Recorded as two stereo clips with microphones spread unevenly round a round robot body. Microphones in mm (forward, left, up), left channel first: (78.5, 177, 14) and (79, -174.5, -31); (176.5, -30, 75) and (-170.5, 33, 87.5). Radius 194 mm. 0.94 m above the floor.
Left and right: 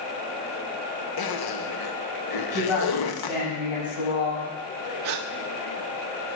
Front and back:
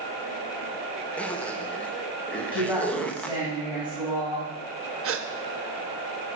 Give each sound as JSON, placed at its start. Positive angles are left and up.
{"t": 1.2, "sound": "a zipper", "azimuth_deg": 75, "distance_m": 1.4}
{"t": 2.5, "sound": "a woman speaking", "azimuth_deg": 75, "distance_m": 7.0}
{"t": 5.0, "sound": "a gasp", "azimuth_deg": -135, "distance_m": 1.0}